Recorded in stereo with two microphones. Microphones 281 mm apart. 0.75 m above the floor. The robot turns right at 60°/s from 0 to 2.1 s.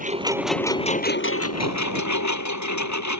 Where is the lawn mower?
30° right; by 3.2 s 95° left.